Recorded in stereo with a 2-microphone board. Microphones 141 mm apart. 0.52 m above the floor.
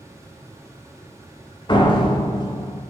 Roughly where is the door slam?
Left.